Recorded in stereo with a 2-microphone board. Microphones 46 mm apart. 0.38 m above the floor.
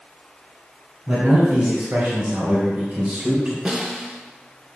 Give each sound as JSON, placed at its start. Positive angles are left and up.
{"t": 1.1, "sound": "a man speaking", "side_deg": -40, "distance_m": 3.0}
{"t": 3.6, "sound": "a snare drum", "side_deg": -20, "distance_m": 1.5}